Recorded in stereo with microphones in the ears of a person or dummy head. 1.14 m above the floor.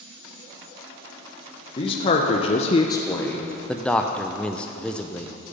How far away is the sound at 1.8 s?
About 1.1 m.